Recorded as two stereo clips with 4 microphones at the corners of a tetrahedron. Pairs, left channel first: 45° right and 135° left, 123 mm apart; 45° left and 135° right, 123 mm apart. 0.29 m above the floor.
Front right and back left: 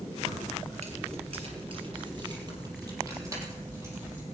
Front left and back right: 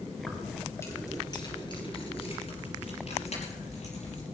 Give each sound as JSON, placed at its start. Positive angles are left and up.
{"t": 0.2, "sound": "keys jangling", "azimuth_deg": 130, "distance_m": 3.0}